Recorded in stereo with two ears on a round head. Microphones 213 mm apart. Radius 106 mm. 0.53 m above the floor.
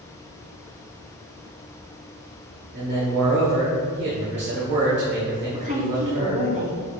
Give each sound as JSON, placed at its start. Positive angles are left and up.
{"t": 2.7, "sound": "a man speaking", "side_deg": -50, "distance_m": 1.4}
{"t": 5.5, "sound": "a woman speaking", "side_deg": -35, "distance_m": 1.5}